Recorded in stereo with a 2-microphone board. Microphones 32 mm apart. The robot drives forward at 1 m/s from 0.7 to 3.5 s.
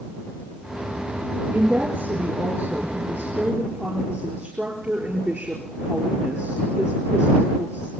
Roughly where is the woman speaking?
Right.